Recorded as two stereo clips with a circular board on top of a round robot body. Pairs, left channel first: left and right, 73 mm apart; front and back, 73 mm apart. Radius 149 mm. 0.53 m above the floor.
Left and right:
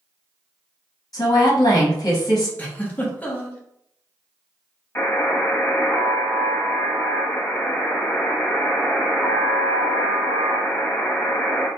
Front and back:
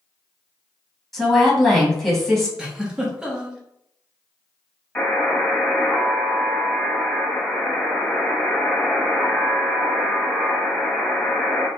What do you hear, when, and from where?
1.1 s a woman speaking: 90° left, 1.2 m
2.6 s a giggle: 115° left, 1.0 m
5.0 s a buzzer: 60° left, 1.3 m